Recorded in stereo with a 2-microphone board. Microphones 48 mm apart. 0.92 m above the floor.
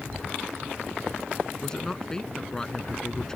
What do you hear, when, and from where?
1.6 s a man speaking: 15° left (ahead or behind)